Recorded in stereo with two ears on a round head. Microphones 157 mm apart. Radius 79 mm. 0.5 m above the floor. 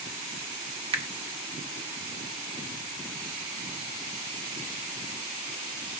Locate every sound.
0.9 s a finger snap: 30° right (ahead or behind), 1.4 m